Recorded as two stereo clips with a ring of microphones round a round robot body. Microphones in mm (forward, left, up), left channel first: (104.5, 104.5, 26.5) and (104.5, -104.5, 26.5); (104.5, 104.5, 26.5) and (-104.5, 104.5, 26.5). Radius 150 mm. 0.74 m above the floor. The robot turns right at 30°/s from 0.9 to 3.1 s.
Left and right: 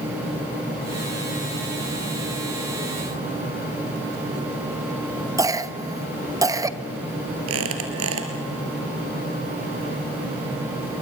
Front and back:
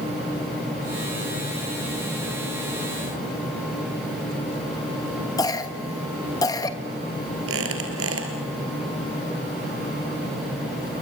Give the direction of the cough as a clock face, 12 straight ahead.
1 o'clock.